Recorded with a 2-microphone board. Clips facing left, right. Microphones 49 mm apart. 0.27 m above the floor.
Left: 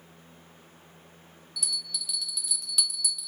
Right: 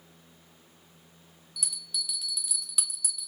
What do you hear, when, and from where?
1.6 s a bell: 10° right (ahead or behind), 1.5 m